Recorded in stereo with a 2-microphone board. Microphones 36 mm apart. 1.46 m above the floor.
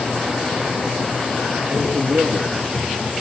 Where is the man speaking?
85° right, 3 m; by 3.1 s 65° right (ahead or behind), 2.5 m.